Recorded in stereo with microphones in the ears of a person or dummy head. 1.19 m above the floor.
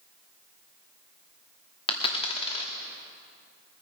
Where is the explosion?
I don't hear an explosion.